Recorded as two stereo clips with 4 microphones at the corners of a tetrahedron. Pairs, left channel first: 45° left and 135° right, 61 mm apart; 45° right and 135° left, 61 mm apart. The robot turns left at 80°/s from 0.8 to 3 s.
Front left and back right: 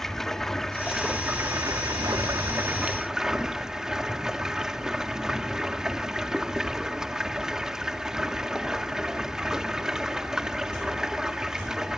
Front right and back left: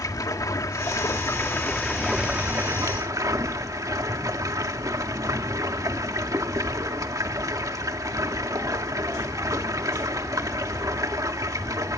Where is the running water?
40° right, 1.8 m; by 12.0 s 145° left, 1.8 m.